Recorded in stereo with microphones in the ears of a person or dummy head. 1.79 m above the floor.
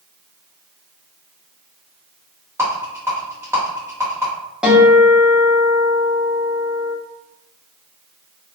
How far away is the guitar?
About 0.9 m.